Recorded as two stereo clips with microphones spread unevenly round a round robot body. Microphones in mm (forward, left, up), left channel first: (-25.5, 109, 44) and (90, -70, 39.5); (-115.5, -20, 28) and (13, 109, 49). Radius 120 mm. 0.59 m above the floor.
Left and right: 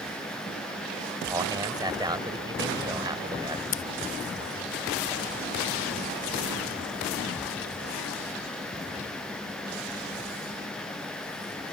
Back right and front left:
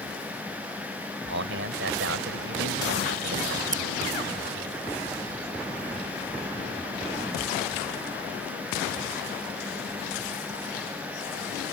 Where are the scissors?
95° left.